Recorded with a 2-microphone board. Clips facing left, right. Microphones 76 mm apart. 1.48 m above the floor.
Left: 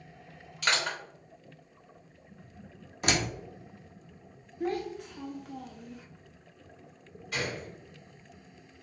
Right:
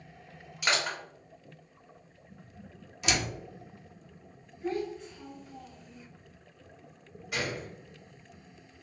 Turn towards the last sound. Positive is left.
turn(degrees=-10)  # may be behind; listen again after turning